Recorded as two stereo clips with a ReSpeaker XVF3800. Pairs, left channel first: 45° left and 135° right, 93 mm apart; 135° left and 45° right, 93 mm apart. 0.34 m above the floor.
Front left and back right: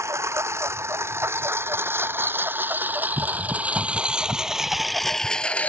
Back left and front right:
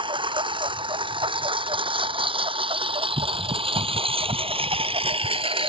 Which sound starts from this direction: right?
A lawn mower, at 0.0 s.